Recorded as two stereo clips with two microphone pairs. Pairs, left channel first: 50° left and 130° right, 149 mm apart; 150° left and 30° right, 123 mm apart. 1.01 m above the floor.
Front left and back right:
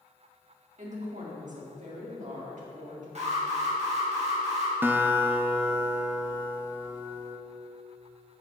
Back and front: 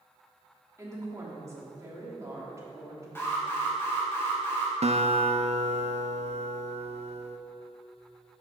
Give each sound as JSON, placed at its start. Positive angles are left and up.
{"t": 0.8, "sound": "a woman speaking", "azimuth_deg": -95, "distance_m": 1.8}
{"t": 3.1, "sound": "an alarm", "azimuth_deg": -145, "distance_m": 1.7}
{"t": 4.8, "sound": "a guitar", "azimuth_deg": -50, "distance_m": 0.5}